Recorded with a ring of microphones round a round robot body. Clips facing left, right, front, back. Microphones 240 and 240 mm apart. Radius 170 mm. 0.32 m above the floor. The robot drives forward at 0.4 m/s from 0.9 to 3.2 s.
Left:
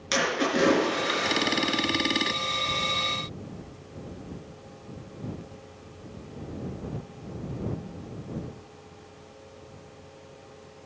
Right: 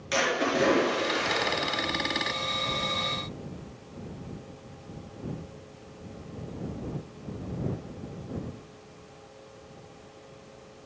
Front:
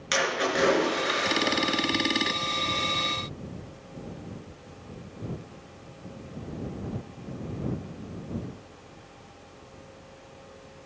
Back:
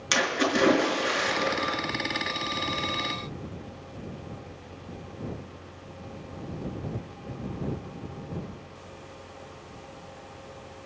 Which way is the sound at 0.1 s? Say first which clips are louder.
Left 1 dB, back 2 dB; 145° left.